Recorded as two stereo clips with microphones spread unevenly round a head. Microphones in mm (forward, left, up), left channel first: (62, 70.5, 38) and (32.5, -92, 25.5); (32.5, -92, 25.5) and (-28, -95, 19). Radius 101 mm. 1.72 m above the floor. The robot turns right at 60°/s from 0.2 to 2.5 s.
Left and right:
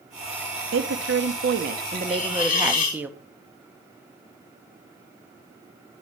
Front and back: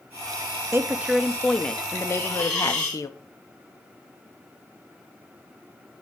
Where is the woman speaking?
125° right, 0.8 m; by 3.1 s 20° right, 0.8 m.